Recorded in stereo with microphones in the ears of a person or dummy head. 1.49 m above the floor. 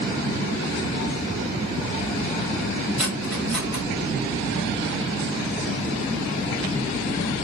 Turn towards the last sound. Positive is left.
turn(degrees=-5)  # may be behind; listen again after turning